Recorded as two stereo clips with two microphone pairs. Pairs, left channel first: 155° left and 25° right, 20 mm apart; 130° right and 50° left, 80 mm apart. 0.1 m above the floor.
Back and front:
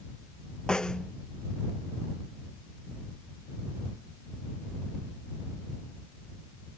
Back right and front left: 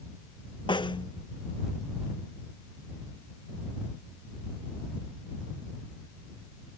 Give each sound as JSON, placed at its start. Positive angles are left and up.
{"t": 0.7, "sound": "a snare drum", "azimuth_deg": -145}